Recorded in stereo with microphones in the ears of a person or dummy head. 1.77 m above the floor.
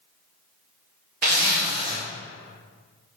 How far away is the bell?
I don't hear a bell.